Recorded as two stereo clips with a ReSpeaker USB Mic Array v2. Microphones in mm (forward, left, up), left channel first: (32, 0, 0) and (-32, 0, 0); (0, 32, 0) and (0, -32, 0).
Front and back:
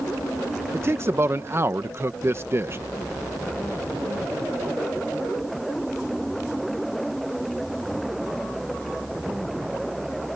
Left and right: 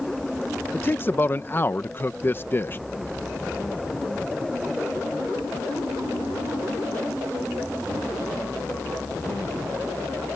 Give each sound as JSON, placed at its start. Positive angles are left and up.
{"t": 0.7, "sound": "a man speaking", "azimuth_deg": 140}